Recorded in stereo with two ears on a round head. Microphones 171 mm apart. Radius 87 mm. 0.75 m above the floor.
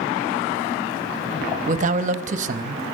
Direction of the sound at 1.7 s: 40° right (ahead or behind).